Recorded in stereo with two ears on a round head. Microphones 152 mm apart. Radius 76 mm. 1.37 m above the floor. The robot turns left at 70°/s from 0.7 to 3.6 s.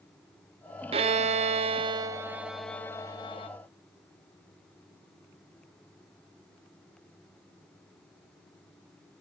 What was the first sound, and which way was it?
A violin, 65° right.